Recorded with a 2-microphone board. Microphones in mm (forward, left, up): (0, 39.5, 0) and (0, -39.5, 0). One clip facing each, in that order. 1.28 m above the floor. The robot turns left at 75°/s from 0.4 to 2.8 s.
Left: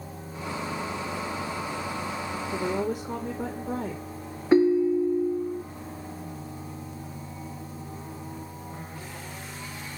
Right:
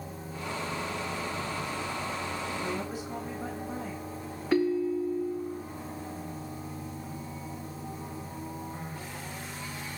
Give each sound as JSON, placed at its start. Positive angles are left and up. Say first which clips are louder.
{"t": 2.5, "sound": "a woman speaking", "louder": "left 6 dB", "side_deg": 80, "distance_m": 3.0}
{"t": 4.5, "sound": "a ringtone", "louder": "left 7 dB", "side_deg": 20, "distance_m": 0.5}